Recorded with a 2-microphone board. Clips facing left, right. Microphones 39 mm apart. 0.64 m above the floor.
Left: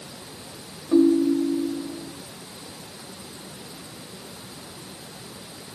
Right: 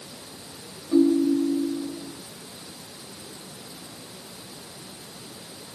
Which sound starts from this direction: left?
A ringtone, at 0.9 s.